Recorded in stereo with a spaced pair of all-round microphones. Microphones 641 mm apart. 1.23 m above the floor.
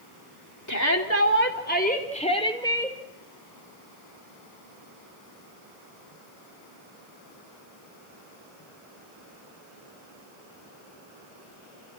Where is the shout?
25° left (ahead or behind), 3.5 m; by 3.0 s 5° left (ahead or behind), 4.5 m.